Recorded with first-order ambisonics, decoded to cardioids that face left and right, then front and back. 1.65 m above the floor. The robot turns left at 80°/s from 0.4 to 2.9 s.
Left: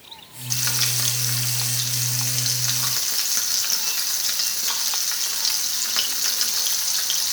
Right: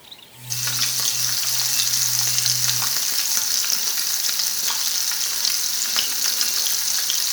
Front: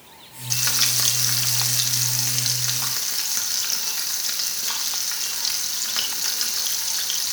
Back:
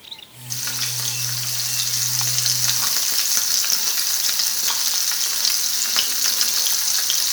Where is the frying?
35° left, 0.9 m; by 7.3 s 155° right, 0.9 m.